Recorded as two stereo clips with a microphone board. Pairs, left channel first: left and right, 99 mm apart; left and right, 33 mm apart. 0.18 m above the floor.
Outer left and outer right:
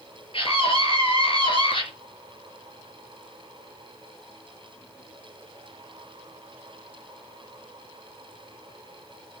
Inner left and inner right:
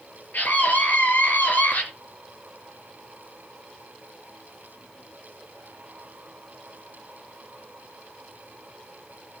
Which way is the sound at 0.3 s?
65° left (ahead or behind).